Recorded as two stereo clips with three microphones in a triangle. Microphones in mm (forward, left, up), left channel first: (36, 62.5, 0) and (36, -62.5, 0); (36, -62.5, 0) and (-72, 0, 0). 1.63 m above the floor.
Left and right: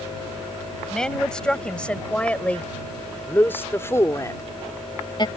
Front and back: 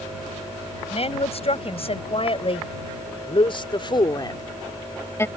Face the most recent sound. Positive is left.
turn(degrees=40)